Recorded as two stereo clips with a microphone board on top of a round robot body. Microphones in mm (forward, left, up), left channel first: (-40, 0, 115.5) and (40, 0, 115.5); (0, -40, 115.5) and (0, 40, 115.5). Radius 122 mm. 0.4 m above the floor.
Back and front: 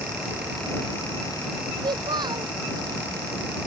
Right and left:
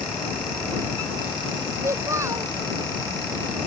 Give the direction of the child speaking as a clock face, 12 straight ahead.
11 o'clock.